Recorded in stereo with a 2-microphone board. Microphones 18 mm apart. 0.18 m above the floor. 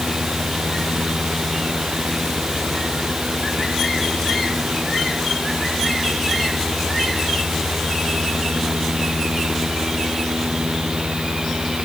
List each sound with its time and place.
Only background noise.